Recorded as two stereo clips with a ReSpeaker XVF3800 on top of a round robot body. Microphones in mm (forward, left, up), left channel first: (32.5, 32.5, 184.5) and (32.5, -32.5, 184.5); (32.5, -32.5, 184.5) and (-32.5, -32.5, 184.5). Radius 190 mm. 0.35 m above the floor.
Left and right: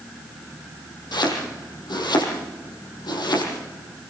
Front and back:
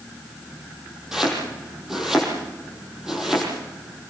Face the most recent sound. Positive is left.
turn(degrees=95)